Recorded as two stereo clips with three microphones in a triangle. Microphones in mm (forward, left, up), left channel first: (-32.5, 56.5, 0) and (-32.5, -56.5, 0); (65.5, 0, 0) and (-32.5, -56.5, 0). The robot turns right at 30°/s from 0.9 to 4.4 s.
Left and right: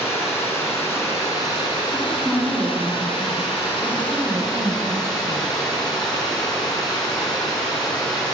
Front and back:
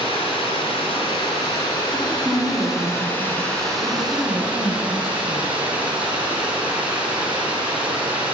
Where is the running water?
30° left, 1.4 m; by 8.3 s 135° left, 1.4 m.